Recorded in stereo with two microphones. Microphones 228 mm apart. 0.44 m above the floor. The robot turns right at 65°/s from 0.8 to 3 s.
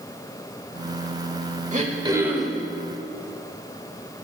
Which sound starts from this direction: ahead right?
Throat clearing, at 1.7 s.